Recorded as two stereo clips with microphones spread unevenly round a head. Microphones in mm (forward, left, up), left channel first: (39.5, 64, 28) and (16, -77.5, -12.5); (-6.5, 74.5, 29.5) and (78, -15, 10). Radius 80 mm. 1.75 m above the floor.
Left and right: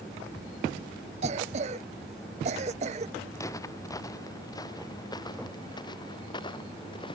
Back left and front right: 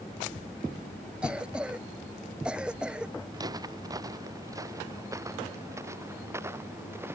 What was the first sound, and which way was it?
A cough, 140° right.